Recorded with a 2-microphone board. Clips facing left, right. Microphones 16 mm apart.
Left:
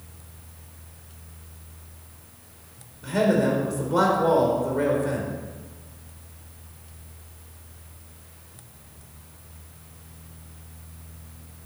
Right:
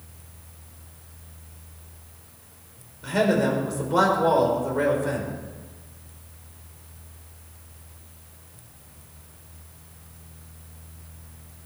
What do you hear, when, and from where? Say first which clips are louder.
3.0 s a man speaking: even; 10° right (ahead or behind), 4 m